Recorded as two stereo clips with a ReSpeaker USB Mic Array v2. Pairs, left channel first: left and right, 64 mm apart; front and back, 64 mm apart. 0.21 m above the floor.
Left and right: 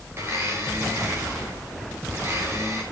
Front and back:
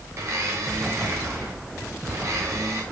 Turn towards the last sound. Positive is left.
turn(degrees=-140)